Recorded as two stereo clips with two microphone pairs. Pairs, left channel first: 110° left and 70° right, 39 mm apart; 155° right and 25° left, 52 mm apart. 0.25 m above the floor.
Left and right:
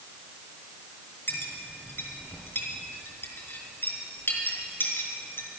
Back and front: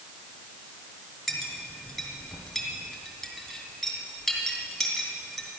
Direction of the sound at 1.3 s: 125° left.